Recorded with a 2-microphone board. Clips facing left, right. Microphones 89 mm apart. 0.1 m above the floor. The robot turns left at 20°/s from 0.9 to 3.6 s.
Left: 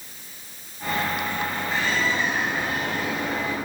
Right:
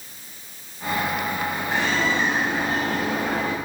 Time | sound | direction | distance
1.7 | a bird | 70° right | 9.5 m